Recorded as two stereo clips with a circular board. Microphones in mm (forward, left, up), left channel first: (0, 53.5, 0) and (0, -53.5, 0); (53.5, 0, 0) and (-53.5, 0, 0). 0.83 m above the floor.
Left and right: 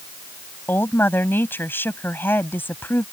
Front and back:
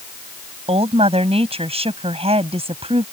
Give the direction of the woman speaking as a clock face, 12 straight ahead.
7 o'clock.